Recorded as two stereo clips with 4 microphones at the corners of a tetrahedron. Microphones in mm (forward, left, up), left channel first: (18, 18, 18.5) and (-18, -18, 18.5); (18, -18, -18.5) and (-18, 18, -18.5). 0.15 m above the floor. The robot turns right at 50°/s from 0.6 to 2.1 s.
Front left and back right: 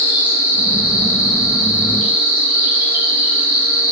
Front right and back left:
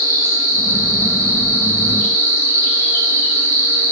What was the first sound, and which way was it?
An insect, 100° left.